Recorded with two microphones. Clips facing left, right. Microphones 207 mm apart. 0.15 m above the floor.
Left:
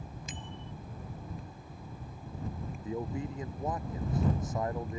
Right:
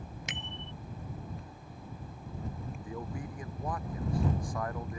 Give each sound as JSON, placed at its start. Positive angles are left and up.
{"t": 0.3, "sound": "a bicycle bell", "side_deg": -75}
{"t": 2.8, "sound": "a man speaking", "side_deg": 25}